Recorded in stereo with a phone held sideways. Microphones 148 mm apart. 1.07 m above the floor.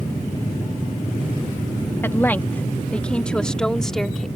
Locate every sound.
2.0 s a woman speaking: 15° left (ahead or behind); by 4.3 s 5° left (ahead or behind)